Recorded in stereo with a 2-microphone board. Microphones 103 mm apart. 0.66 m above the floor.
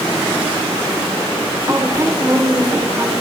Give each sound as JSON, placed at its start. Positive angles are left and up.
{"t": 1.7, "sound": "a woman speaking", "side_deg": -25, "distance_m": 1.6}